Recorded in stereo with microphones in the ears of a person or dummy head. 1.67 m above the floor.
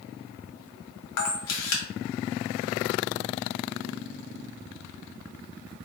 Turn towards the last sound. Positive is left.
turn(degrees=75)  # may be behind; listen again after turning